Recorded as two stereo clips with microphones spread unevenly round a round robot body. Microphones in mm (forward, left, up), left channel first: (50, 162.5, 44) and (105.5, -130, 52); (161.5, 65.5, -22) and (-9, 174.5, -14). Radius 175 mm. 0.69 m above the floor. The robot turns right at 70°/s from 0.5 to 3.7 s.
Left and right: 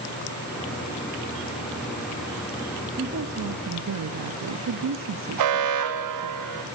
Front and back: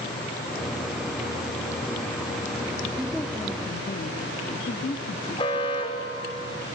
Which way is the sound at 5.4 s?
105° right.